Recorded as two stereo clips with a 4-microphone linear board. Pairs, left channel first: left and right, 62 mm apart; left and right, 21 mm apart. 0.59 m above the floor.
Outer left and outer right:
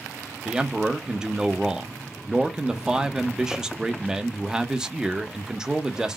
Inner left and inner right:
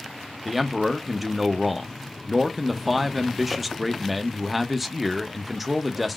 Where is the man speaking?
10° right (ahead or behind), 0.7 m.